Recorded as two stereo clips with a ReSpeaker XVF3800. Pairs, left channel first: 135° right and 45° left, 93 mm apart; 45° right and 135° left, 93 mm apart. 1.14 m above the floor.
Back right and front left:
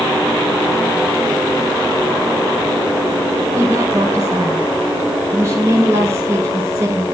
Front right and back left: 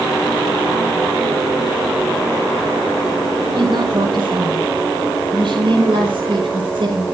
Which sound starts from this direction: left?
A woman speaking, at 3.5 s.